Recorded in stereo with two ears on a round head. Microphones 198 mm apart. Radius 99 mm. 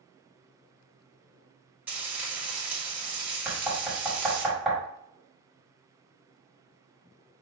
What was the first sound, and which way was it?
Frying, 10° right (ahead or behind).